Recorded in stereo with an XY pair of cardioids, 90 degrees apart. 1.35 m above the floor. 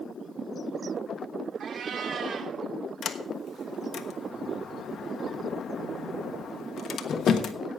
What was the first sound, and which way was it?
A cat meowing, 60° right.